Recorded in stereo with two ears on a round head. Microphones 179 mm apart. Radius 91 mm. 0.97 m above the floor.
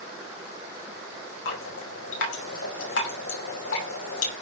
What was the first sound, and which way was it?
Dripping, 75° left (ahead or behind).